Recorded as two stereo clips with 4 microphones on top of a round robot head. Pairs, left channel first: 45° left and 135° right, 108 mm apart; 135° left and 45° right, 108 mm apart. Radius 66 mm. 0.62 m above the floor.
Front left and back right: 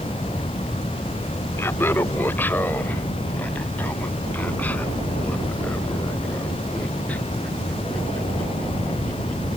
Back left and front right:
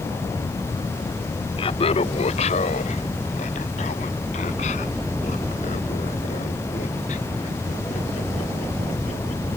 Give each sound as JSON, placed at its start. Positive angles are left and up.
{"t": 1.6, "sound": "laughter", "azimuth_deg": 110}